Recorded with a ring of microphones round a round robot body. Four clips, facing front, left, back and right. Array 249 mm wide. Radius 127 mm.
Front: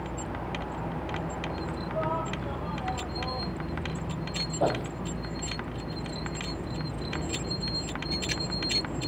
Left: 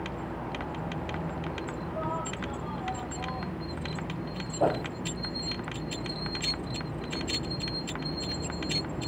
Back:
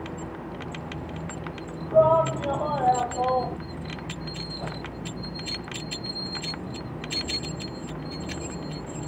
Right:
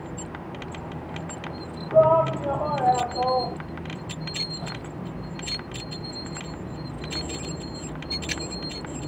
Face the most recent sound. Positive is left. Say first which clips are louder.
# left 15 dB, front 10 dB
turn(degrees=55)